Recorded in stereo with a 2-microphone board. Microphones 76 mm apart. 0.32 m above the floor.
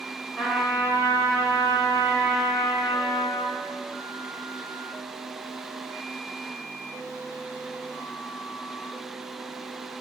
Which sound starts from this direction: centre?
A trumpet, at 0.4 s.